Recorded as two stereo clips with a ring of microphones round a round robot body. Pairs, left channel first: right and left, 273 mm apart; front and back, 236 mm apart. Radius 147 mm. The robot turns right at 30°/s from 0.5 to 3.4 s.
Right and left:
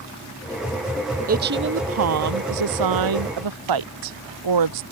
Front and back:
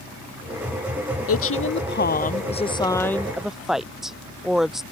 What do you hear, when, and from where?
1.3 s a woman speaking: 30° left; by 4.8 s 90° left